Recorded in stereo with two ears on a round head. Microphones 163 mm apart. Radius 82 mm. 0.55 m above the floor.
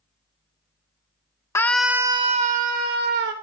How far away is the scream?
About 1.0 m.